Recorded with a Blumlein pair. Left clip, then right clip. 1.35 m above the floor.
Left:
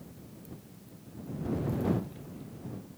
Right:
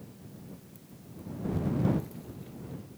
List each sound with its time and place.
Only background noise.